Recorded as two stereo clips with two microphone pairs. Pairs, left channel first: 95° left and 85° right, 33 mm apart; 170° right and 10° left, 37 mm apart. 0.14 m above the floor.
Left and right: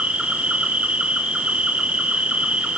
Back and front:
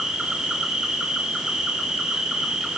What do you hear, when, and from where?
0.0 s an insect: 55° right, 1.1 m